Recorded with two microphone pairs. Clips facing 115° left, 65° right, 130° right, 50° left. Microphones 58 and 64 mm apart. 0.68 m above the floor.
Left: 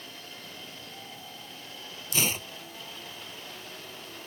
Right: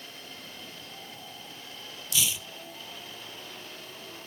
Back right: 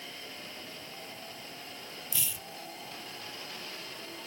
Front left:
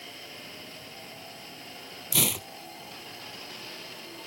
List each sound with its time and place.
2.1 s tearing paper: 70° left